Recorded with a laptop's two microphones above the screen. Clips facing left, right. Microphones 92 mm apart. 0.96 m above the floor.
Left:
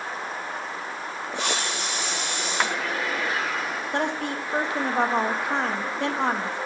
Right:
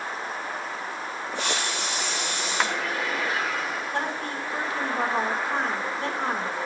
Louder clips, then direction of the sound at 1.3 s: Left 1 dB; 65° left (ahead or behind).